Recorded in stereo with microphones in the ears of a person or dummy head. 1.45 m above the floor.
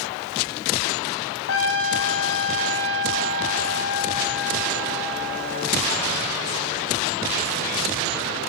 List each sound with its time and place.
1.5 s a trumpet: 70° left (ahead or behind), 0.8 m